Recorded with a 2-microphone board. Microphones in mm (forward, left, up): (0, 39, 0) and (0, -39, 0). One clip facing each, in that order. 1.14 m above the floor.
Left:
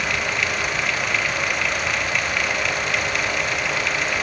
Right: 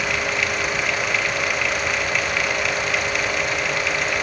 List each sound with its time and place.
Only background noise.